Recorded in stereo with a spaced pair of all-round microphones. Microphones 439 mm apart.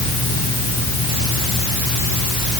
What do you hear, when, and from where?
Only background noise.